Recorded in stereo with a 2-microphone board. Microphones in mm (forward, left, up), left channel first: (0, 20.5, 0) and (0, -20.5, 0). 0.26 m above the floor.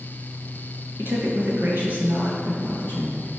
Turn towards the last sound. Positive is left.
turn(degrees=-35)  # may be behind; listen again after turning